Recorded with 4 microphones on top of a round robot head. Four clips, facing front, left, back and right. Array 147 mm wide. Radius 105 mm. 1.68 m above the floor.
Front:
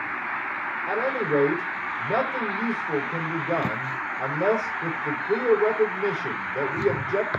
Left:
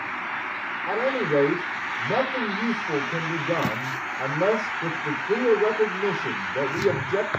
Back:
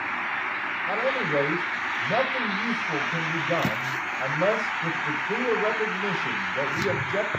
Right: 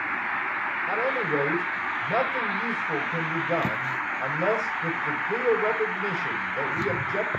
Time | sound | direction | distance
0.9 | a man speaking | 55° left | 7 m